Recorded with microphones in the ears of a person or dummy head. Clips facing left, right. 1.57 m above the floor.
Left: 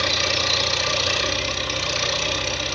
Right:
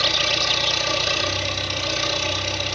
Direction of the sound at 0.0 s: 85° left.